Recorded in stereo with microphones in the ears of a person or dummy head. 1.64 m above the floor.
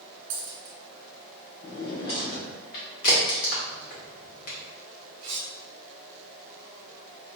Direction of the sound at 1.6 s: 20° left (ahead or behind).